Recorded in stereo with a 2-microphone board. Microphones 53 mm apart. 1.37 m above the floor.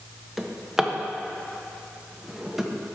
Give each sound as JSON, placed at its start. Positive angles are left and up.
{"t": 0.4, "sound": "a drawer", "side_deg": -10, "distance_m": 0.6}